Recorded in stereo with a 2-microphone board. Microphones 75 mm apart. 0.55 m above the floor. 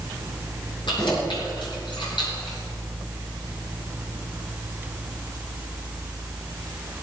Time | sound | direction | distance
0.9 | keys jangling | 85° left | 6.5 m